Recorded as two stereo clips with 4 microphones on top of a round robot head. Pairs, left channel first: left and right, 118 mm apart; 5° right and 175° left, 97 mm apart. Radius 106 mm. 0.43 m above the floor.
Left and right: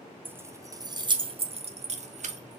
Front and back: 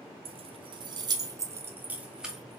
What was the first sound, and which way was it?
Keys jangling, 165° right.